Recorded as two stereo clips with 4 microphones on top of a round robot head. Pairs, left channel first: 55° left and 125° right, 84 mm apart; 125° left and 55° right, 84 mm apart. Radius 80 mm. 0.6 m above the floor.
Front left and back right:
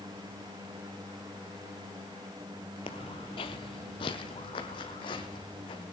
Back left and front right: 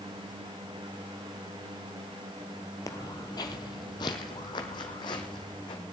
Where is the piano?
No piano in this recording.